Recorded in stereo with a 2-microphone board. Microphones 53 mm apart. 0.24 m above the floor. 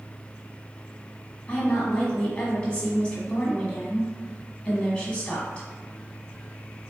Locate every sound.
1.5 s a woman speaking: 20° left (ahead or behind), 1.6 m